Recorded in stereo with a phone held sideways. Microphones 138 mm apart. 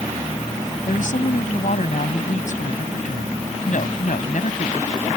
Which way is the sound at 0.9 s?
65° left (ahead or behind).